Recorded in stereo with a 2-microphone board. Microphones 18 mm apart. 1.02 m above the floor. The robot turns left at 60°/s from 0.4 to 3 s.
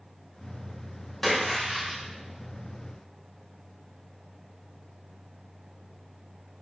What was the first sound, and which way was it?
A splash, 15° left.